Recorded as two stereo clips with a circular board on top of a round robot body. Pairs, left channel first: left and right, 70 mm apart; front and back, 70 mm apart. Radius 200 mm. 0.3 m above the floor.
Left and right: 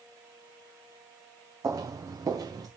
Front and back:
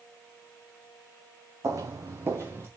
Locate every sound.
1.6 s footsteps: 140° right, 1.4 m; by 2.7 s 125° right, 2 m